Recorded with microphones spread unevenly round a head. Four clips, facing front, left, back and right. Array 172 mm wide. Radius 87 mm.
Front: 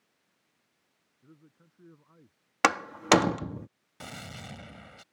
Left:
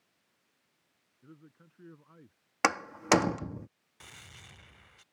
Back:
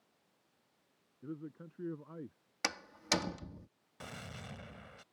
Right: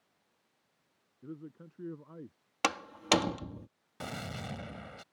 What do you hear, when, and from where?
1.2 s a man speaking: 140° right
2.6 s a door slam: 15° left
4.0 s a gunshot: 65° right